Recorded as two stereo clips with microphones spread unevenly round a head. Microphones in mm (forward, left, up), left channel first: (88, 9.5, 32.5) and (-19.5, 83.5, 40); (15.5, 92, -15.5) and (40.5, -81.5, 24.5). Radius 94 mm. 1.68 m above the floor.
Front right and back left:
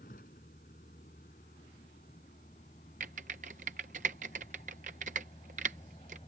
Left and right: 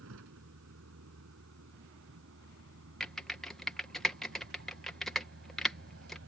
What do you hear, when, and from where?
0.0 s a vehicle: 85° right; by 6.3 s 100° right
3.0 s typing on a keyboard: 165° right